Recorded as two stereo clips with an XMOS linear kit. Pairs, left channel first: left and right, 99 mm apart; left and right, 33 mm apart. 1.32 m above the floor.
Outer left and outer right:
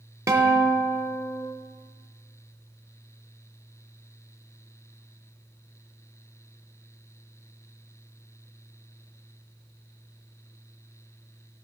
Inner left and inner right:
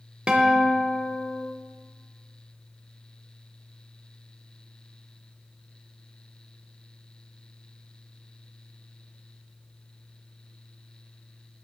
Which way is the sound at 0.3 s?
30° right (ahead or behind).